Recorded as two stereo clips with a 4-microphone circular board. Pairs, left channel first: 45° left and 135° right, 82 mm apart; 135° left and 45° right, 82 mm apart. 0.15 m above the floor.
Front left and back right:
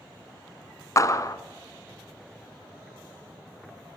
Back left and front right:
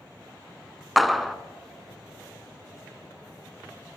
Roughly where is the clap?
Ahead left.